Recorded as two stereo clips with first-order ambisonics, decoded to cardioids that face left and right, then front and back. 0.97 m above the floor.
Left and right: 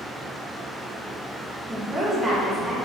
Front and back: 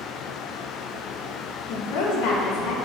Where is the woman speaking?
15° right, 0.9 m.